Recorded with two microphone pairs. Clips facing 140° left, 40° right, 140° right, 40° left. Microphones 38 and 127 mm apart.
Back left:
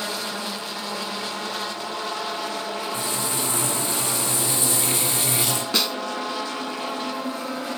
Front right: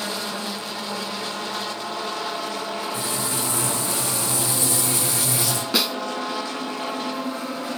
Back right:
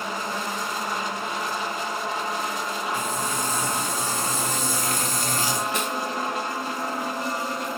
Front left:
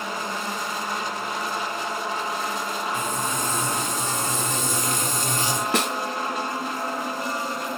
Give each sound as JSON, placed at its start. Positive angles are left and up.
{"t": 2.9, "sound": "frying", "azimuth_deg": 110, "distance_m": 3.5}
{"t": 5.7, "sound": "a snare drum", "azimuth_deg": 45, "distance_m": 0.5}